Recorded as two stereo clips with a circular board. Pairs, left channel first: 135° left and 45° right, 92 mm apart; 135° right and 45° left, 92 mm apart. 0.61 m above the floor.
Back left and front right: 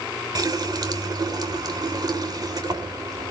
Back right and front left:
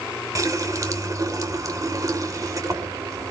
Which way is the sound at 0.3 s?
5° right.